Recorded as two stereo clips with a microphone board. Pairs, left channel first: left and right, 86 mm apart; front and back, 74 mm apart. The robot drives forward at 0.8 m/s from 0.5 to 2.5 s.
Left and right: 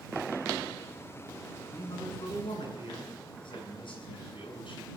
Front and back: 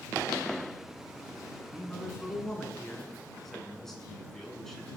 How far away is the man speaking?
About 7.5 m.